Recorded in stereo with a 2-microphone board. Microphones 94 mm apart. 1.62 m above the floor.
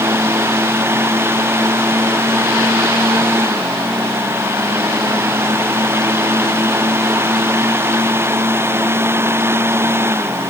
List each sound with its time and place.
Only background noise.